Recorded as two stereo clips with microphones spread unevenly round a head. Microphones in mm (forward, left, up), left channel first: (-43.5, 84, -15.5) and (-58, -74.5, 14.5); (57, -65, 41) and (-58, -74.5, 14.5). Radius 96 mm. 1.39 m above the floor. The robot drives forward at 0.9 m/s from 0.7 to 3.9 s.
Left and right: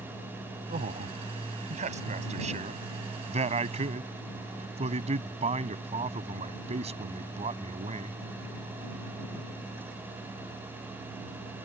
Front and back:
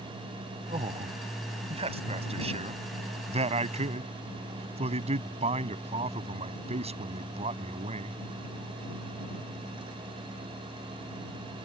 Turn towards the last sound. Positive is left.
turn(degrees=-145)